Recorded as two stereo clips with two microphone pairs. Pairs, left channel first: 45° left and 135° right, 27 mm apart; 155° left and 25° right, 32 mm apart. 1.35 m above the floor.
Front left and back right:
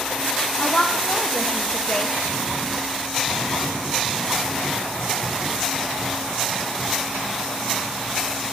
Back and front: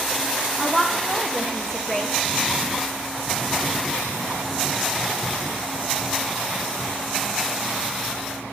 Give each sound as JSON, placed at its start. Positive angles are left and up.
{"t": 0.6, "sound": "a woman speaking", "azimuth_deg": 90, "distance_m": 0.8}